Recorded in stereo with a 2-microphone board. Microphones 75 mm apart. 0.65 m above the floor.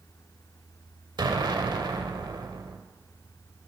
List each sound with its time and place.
1.2 s an explosion: 75° right (ahead or behind), 0.9 m